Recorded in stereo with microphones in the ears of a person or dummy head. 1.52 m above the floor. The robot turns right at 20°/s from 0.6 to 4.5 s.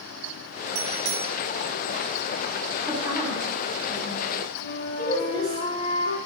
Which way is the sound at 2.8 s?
5° right (ahead or behind).